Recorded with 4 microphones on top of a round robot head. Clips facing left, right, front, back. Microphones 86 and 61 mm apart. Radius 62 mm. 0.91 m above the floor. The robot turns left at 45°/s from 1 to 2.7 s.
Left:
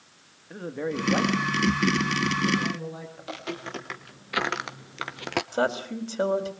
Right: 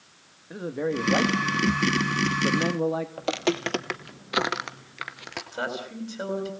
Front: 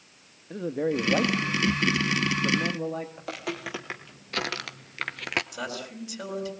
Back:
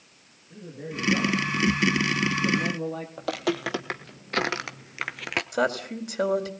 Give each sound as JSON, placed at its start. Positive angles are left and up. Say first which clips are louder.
{"t": 0.5, "sound": "a man speaking", "louder": "right 3 dB, front 10 dB", "azimuth_deg": -10, "distance_m": 1.7}
{"t": 3.2, "sound": "footsteps", "louder": "right 10 dB, back 7 dB", "azimuth_deg": -120, "distance_m": 1.8}
{"t": 5.5, "sound": "a woman speaking", "louder": "left 4 dB, back 9 dB", "azimuth_deg": 145, "distance_m": 4.0}